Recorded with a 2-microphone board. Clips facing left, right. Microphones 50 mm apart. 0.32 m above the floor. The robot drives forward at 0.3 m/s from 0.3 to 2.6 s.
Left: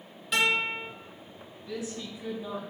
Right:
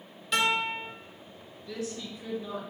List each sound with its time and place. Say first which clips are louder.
0.3 s a guitar: left 1 dB; 5° left (ahead or behind), 1.5 m
1.7 s a woman speaking: even; 20° left (ahead or behind), 1.3 m